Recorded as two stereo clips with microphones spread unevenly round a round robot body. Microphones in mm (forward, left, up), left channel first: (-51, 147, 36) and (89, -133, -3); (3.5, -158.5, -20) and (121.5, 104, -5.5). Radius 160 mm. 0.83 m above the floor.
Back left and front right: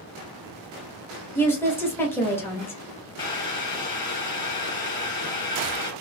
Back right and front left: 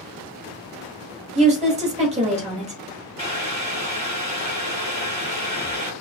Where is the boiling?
Straight behind, 1.8 m.